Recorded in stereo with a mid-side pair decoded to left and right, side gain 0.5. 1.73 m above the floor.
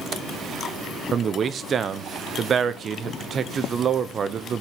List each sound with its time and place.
1.1 s a man speaking: 45° right, 1.1 m